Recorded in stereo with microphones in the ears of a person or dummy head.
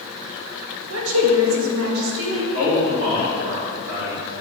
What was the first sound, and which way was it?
A woman speaking, 75° right (ahead or behind).